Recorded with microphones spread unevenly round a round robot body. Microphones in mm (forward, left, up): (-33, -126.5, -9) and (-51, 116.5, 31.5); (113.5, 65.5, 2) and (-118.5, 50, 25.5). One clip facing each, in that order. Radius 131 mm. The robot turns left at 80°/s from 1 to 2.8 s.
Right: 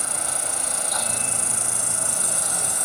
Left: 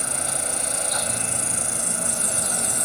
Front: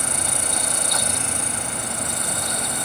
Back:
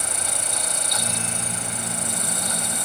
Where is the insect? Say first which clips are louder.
Left 2 dB, front 4 dB; 30° right; by 2.9 s 170° right.